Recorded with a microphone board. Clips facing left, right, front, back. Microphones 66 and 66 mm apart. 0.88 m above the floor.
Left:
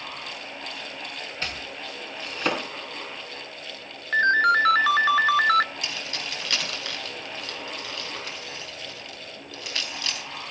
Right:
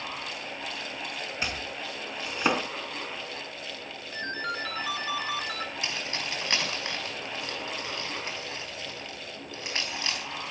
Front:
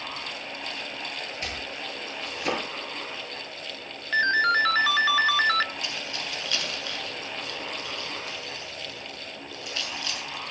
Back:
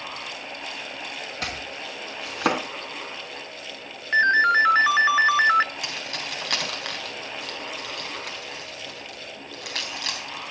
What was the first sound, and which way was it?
Chopping, 170° right.